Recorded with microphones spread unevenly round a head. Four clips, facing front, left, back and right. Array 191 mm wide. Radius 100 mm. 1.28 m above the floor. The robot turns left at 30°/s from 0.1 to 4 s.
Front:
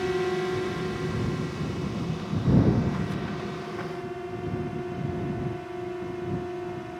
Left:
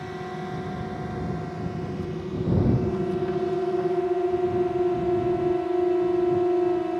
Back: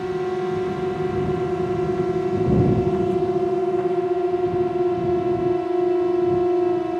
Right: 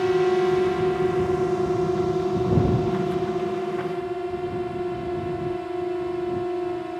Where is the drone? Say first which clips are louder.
Right 14 dB, back 3 dB; 85° right; by 7.0 s 160° left.